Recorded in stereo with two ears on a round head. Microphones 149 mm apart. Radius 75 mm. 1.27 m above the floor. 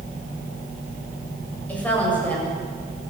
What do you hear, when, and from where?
1.7 s a woman speaking: 10° left (ahead or behind), 7.5 m